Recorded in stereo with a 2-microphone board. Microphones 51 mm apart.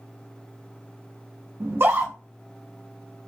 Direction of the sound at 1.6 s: 55° right (ahead or behind).